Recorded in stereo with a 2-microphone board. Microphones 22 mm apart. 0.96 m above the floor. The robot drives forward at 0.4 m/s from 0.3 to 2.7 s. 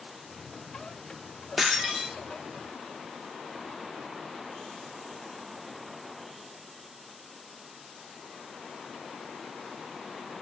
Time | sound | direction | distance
1.6 | breaking glass | 5° right (ahead or behind) | 0.5 m